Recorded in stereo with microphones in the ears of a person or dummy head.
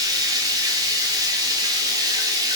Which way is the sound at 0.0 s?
15° right (ahead or behind).